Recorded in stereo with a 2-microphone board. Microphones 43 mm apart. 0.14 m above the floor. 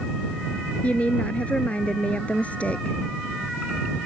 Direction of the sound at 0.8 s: 30° left (ahead or behind).